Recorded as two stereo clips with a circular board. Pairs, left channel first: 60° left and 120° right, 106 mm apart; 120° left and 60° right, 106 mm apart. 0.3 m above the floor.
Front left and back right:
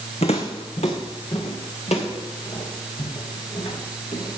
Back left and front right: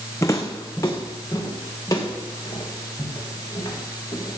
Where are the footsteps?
55° left, 1.4 m; by 4.4 s 65° left, 4.5 m.